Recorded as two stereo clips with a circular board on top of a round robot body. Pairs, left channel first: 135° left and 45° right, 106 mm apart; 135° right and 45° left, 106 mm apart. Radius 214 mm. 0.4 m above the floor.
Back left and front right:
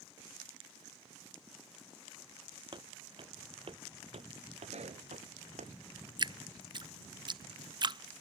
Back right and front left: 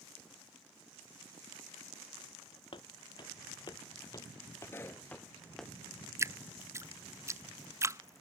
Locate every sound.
2.7 s footsteps: 90° right; by 5.7 s 45° right
4.7 s a pop: 65° right
6.2 s dripping: 10° right